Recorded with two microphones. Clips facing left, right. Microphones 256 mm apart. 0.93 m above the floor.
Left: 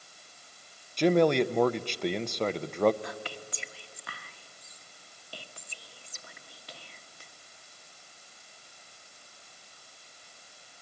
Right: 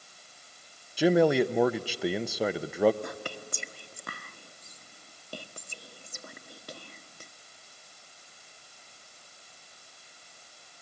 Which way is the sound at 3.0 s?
50° right (ahead or behind).